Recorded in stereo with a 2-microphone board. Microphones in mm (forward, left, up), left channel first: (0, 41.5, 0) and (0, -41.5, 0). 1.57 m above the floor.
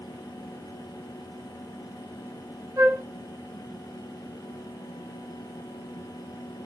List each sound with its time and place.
2.8 s a flute: 40° right (ahead or behind), 0.8 m